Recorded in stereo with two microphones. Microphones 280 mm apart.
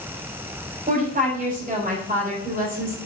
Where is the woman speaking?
30° right (ahead or behind), 4 m.